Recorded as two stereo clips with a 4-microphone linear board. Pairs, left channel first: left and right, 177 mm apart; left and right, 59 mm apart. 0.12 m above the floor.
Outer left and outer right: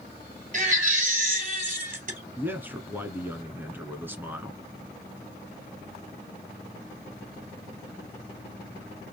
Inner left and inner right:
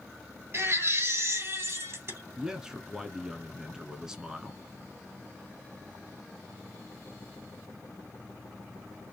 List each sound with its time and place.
0.5 s a baby crying: 50° right (ahead or behind), 2.5 m
2.4 s a man speaking: 10° right (ahead or behind), 1.1 m